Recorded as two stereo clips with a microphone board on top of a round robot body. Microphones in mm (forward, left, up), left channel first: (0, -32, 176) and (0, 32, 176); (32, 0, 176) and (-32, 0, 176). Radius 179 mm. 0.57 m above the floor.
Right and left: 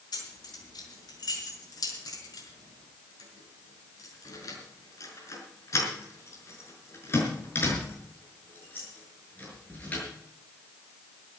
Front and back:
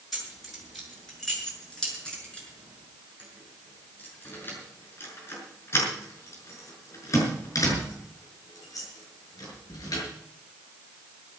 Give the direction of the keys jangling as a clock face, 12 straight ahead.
3 o'clock.